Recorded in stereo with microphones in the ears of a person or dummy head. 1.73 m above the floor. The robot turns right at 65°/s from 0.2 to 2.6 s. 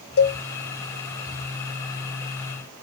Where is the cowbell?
55° left (ahead or behind), 0.7 m; by 0.4 s 45° left (ahead or behind), 0.7 m.